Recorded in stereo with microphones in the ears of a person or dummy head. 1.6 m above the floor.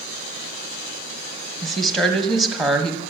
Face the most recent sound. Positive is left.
turn(degrees=0)  # may be behind; listen again after turning